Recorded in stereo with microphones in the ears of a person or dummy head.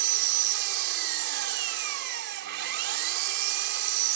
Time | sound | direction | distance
0.0 | an engine running | 70° right (ahead or behind) | ?